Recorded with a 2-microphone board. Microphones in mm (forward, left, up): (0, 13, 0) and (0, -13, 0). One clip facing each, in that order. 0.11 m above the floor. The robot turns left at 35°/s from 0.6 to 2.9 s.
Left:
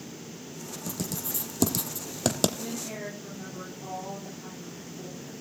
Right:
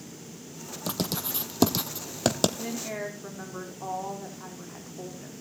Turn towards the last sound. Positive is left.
turn(degrees=-40)  # may be behind; listen again after turning